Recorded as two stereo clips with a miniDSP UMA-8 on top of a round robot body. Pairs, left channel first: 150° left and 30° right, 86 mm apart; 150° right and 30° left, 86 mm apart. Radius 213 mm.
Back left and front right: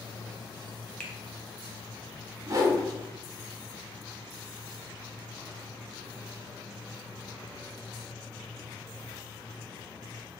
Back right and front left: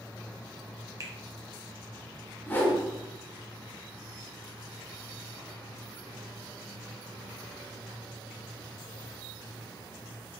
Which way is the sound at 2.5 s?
85° right.